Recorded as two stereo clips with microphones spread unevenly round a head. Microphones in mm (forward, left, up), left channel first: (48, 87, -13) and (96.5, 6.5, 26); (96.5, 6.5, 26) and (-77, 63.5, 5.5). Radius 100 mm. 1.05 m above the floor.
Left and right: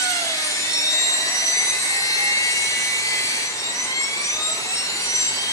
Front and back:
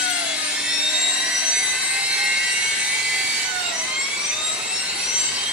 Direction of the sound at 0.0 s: 80° left.